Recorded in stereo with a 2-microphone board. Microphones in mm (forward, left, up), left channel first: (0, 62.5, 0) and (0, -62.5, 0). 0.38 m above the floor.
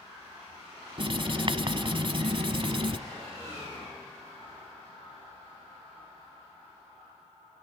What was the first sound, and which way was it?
Writing, 50° right (ahead or behind).